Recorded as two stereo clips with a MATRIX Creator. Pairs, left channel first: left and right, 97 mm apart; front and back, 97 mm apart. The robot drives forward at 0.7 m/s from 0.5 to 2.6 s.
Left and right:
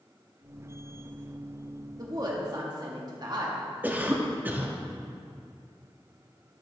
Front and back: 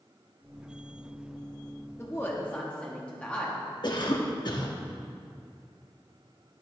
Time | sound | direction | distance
2.0 | a woman speaking | 55° right | 1.4 m
3.8 | a cough | 25° right | 1.2 m